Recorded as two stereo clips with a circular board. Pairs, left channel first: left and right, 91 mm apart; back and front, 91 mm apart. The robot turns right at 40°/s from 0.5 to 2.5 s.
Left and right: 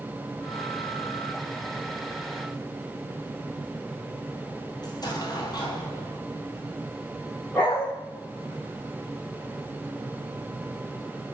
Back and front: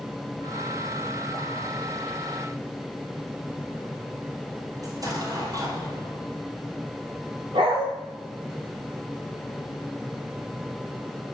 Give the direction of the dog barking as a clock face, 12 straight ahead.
11 o'clock.